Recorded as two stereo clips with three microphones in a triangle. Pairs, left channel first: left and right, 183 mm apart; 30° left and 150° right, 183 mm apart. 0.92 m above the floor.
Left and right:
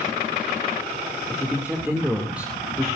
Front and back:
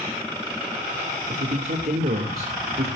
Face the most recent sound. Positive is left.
turn(degrees=-175)